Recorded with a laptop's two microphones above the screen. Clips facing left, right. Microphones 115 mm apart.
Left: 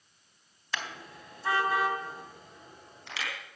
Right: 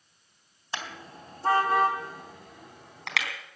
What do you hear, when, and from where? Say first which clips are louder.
0.7 s a car horn: right 1 dB; 25° right (ahead or behind), 3 m; by 3.3 s 80° right, 4 m